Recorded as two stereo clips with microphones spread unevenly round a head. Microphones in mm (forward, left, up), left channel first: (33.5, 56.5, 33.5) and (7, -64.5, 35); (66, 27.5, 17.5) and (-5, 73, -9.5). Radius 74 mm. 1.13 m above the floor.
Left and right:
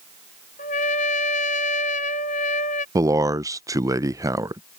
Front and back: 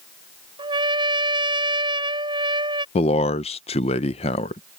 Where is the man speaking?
40° right.